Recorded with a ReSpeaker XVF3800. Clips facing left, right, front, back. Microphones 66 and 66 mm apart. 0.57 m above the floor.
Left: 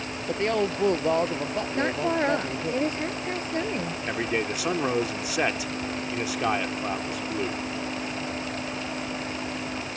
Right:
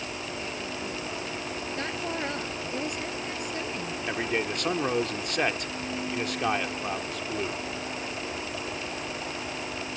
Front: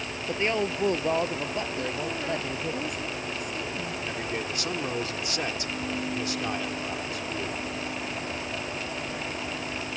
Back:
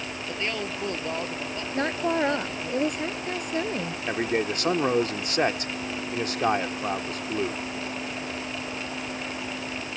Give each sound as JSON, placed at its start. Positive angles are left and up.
{"t": 0.3, "sound": "a woman speaking", "azimuth_deg": 70}
{"t": 1.7, "sound": "a woman speaking", "azimuth_deg": 145}
{"t": 4.1, "sound": "a man speaking", "azimuth_deg": 170}